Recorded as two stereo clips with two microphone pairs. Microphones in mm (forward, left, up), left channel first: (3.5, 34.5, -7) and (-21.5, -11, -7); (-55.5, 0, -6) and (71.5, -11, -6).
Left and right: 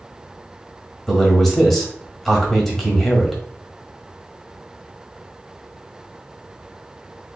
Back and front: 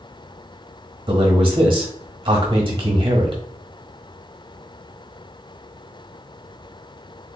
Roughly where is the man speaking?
Ahead.